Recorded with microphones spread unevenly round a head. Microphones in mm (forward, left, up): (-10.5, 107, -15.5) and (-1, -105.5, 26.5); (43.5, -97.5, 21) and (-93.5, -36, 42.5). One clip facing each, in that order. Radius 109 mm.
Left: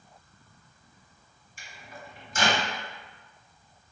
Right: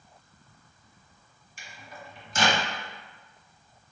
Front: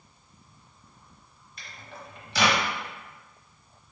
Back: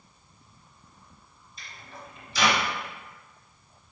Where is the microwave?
50° right, 0.7 m.